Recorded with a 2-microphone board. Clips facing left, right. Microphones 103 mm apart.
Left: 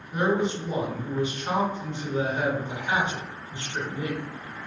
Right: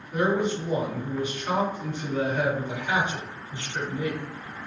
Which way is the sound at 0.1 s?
25° left (ahead or behind).